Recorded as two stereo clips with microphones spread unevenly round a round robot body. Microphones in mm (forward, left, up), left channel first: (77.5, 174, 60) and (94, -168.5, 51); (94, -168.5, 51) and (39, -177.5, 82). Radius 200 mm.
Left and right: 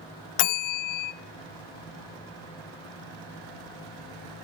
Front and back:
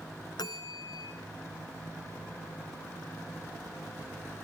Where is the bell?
75° left, 0.5 m.